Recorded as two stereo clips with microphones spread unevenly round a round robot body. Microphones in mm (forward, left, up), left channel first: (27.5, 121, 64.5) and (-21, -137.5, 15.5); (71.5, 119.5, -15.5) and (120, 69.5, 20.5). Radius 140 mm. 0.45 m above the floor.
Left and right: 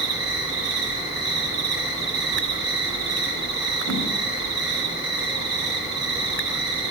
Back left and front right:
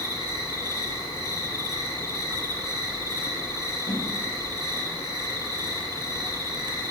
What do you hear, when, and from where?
0.0 s an insect: 65° right, 3.5 m
3.9 s a whoosh: 80° right, 1.7 m